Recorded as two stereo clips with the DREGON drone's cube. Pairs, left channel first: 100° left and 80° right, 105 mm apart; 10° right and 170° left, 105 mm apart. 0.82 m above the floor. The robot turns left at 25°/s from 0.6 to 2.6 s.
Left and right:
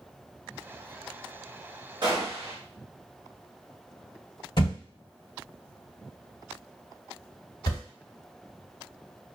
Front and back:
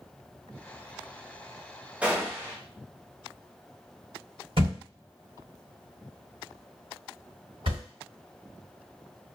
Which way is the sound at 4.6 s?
145° left.